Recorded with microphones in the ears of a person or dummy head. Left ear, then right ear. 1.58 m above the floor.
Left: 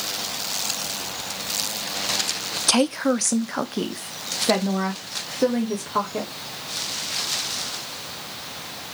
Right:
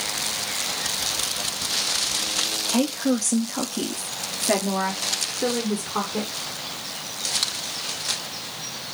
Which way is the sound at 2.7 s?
70° left (ahead or behind).